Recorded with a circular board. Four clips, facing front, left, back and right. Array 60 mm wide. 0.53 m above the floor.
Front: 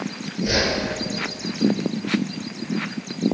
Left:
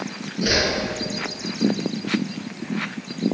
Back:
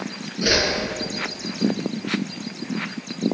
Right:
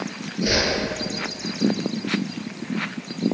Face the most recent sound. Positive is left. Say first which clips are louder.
# left 1 dB, back 1 dB
turn(degrees=155)